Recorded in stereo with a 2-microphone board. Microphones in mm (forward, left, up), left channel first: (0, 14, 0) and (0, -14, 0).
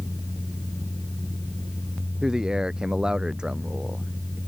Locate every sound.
2.2 s a man speaking: 25° right (ahead or behind); by 4.4 s 35° right (ahead or behind)